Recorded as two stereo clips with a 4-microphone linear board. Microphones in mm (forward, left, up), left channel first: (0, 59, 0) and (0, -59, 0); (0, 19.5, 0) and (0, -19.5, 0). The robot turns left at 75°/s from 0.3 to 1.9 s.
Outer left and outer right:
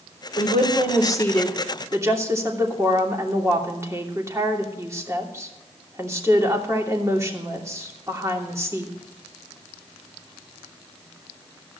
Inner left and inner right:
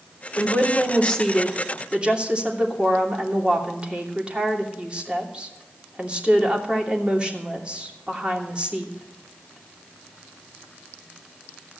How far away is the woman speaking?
About 2.5 m.